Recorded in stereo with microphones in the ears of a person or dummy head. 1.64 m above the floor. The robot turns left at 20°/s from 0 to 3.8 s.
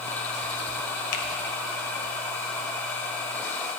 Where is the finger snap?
50° left (ahead or behind), 1.2 m.